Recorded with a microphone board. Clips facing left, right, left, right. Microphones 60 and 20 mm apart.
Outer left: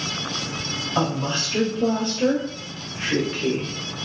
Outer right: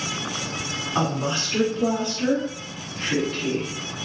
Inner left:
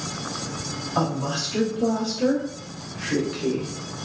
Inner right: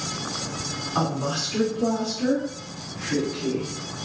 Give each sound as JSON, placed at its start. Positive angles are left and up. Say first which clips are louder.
{"t": 0.9, "sound": "a woman speaking", "louder": "outer left 1 dB, inner left 1 dB", "side_deg": -35, "distance_m": 1.9}